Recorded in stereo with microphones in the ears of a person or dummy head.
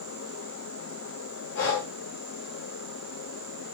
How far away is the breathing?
About 0.9 m.